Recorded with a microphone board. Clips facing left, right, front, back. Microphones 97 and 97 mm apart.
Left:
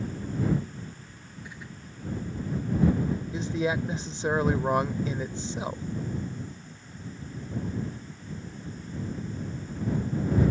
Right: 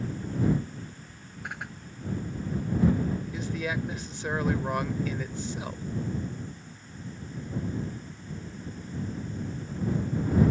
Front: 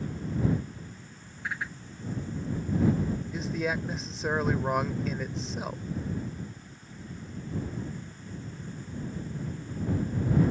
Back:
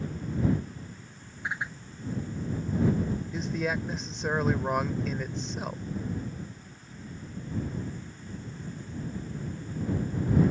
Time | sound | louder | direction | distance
1.4 | a whoosh | right 7 dB, back 1 dB | 110° right | ?
3.3 | a man speaking | left 4 dB, back 1 dB | 85° left | ?